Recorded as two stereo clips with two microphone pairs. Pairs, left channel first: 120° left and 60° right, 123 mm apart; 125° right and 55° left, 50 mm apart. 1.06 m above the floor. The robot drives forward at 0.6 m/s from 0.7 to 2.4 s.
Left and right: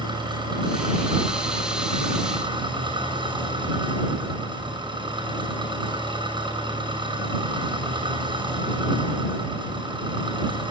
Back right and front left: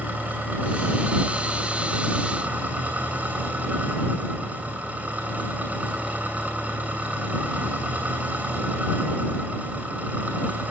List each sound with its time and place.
0.0 s an engine running: 10° right, 8 m